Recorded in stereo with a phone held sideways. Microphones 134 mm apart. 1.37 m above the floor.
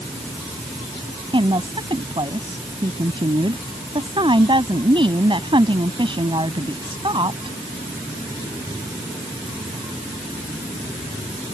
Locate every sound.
1.3 s a woman speaking: 40° right (ahead or behind)